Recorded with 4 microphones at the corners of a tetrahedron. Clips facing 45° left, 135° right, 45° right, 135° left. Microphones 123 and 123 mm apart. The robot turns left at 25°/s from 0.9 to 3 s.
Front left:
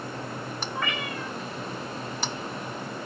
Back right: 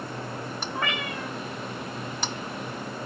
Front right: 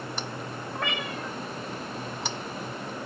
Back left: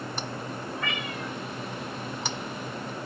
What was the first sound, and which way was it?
A cat meowing, 75° right.